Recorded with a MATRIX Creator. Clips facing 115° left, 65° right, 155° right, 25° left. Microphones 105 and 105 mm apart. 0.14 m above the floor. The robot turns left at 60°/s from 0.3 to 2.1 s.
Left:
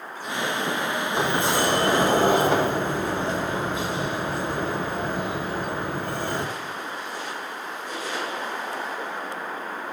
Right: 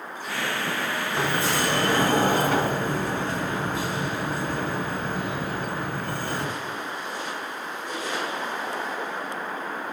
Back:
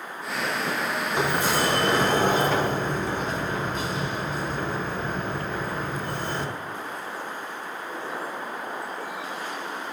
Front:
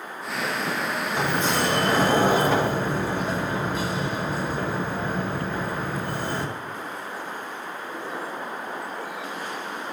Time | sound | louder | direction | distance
1.1 | a sliding door | left 2 dB, even | 155° left | 1.1 m